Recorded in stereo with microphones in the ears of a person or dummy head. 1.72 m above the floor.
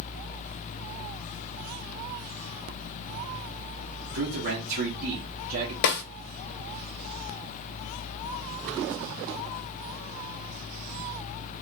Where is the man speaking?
60° right (ahead or behind), 1.1 m.